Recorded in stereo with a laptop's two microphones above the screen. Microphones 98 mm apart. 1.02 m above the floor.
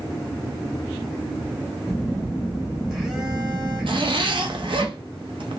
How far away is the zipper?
About 0.5 m.